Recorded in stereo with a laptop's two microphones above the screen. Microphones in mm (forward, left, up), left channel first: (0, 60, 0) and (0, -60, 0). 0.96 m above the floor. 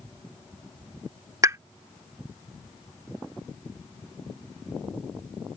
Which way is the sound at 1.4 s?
25° right (ahead or behind).